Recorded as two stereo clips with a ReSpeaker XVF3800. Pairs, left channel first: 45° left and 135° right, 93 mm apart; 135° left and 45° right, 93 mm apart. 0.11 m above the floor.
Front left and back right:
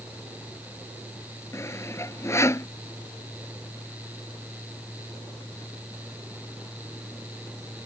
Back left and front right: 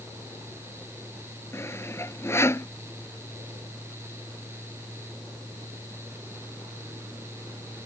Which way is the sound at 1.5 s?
90° left.